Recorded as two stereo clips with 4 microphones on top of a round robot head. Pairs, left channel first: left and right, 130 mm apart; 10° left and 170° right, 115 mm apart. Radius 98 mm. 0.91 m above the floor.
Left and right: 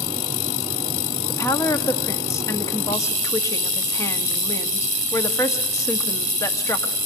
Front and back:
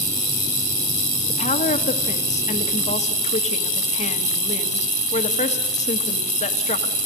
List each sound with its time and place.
1.3 s a woman speaking: 20° left, 1.5 m